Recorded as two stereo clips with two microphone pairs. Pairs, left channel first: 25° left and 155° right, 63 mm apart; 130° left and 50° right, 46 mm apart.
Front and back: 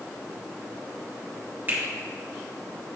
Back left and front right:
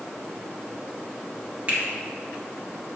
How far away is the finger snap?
About 2.5 m.